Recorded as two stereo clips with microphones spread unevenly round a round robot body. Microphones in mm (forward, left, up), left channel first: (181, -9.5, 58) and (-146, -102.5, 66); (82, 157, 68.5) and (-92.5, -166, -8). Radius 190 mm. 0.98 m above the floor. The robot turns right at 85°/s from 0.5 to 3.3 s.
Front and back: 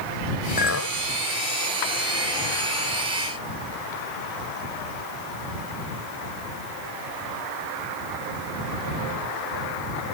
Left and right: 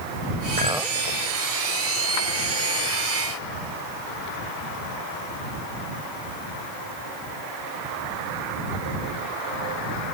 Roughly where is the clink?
Ahead right.